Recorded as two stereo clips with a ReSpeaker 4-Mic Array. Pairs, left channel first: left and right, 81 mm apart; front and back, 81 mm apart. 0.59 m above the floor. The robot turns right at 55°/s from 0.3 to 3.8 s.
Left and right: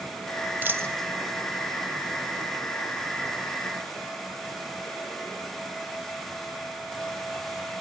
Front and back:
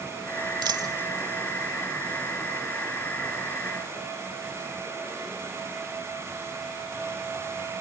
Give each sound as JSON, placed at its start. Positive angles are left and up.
{"t": 0.6, "sound": "a dropped coin", "azimuth_deg": -155, "distance_m": 1.0}